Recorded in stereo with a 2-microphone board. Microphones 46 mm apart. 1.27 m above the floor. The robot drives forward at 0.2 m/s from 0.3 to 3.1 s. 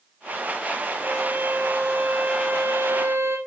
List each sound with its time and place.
1.0 s a violin: 50° right (ahead or behind), 4 m; by 3.4 s 55° right (ahead or behind), 3.5 m